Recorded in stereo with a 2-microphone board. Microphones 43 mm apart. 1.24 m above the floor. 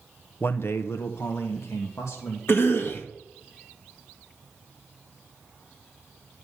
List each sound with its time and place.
0.4 s a man speaking: 50° left (ahead or behind), 0.6 m; by 2.4 s 80° left, 2 m
2.5 s a cough: 55° left (ahead or behind), 1.9 m